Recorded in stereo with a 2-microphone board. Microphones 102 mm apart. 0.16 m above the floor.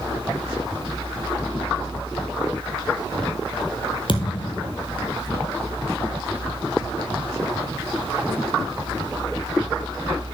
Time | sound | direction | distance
4.1 | a thud | 55° left (ahead or behind) | 1.9 m